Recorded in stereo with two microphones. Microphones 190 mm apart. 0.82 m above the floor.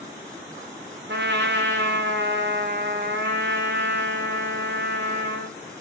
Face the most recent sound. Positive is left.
turn(degrees=-70)  # may be behind; listen again after turning